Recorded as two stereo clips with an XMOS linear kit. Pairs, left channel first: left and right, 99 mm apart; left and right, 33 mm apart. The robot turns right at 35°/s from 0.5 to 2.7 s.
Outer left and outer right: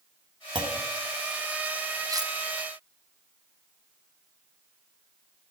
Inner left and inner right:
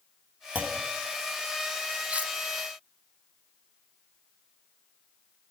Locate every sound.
0.6 s a clunk: 50° right (ahead or behind), 1.2 m; by 0.8 s 45° right (ahead or behind), 1.2 m
2.1 s cutlery clinking: 35° right (ahead or behind), 0.7 m; by 2.3 s 45° right (ahead or behind), 0.7 m